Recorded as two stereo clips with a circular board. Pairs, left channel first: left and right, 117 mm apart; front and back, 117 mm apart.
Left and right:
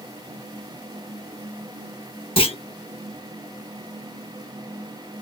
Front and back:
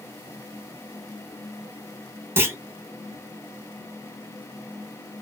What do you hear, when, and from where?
2.4 s a clunk: 115° left, 0.5 m